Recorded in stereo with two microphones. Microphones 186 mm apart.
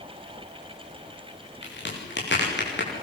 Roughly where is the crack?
Left.